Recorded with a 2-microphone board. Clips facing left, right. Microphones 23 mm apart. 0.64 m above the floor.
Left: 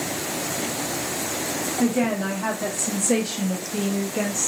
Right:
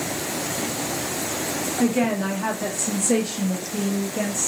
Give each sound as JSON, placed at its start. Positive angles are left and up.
{"t": 1.8, "sound": "a woman speaking", "side_deg": -30, "distance_m": 1.2}